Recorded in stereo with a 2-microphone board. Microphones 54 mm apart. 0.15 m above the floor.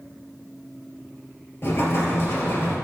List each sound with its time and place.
1.6 s an explosion: 50° left (ahead or behind), 3 m